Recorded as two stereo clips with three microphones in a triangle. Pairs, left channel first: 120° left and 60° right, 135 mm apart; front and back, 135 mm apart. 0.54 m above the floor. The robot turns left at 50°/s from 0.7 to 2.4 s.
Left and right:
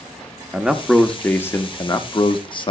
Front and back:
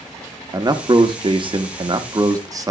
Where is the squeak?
No squeak in this recording.